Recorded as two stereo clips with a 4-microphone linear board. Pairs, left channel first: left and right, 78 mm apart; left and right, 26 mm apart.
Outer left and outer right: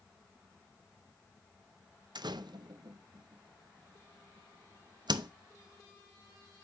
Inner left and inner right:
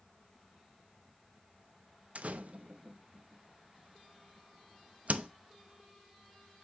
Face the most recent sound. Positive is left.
turn(degrees=-65)  # may be behind; listen again after turning